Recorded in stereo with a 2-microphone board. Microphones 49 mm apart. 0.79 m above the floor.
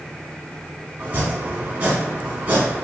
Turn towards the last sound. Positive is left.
turn(degrees=-30)  # may be behind; listen again after turning